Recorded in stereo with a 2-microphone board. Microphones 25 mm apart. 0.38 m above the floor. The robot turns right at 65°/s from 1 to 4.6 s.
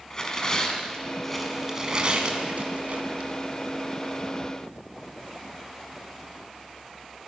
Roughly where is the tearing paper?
Left.